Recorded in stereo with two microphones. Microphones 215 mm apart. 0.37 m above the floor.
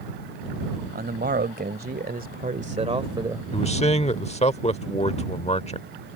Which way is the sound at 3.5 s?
30° left (ahead or behind).